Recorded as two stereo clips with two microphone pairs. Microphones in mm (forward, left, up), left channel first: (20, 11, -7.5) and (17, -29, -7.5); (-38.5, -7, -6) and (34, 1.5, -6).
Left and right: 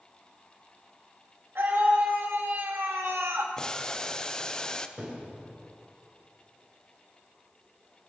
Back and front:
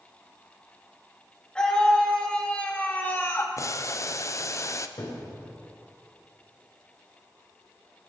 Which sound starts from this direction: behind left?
Boiling, at 3.6 s.